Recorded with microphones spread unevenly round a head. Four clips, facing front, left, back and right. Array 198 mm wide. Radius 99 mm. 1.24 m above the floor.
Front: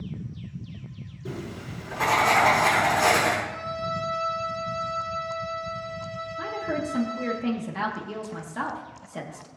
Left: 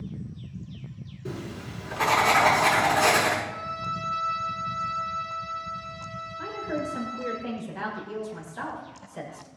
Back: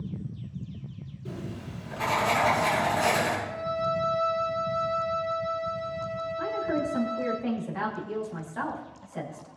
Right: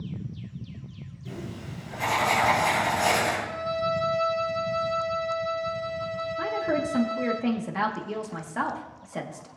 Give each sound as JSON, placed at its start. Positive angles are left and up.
{"t": 1.2, "sound": "writing", "azimuth_deg": 50, "distance_m": 7.0}
{"t": 3.5, "sound": "a violin", "azimuth_deg": -115, "distance_m": 2.5}
{"t": 6.4, "sound": "a woman speaking", "azimuth_deg": -70, "distance_m": 2.5}